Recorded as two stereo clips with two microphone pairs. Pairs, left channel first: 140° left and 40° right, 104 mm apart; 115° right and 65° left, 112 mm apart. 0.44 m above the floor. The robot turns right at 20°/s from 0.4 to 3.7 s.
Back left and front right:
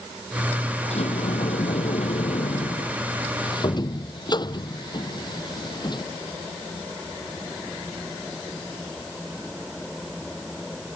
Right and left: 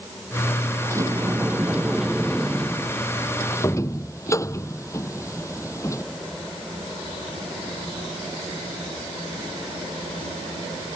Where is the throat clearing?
I don't hear throat clearing.